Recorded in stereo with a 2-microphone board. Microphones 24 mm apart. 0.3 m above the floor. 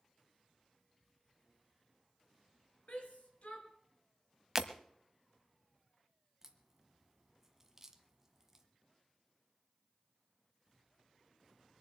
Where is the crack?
15° right (ahead or behind), 1.5 m.